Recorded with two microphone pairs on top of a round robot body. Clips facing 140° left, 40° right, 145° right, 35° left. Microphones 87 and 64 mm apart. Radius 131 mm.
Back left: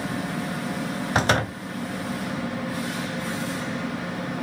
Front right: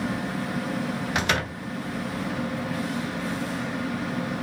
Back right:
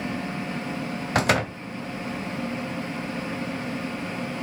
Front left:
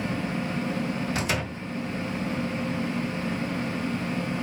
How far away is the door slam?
About 2 m.